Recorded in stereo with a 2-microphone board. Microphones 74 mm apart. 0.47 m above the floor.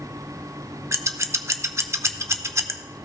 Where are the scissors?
40° right (ahead or behind), 0.6 m.